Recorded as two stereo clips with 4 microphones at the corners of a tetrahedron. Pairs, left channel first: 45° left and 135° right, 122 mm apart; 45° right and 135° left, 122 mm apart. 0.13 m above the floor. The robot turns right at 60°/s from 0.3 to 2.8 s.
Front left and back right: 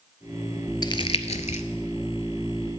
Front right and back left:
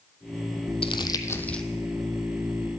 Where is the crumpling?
10° right, 0.5 m; by 1.6 s 40° left, 0.5 m.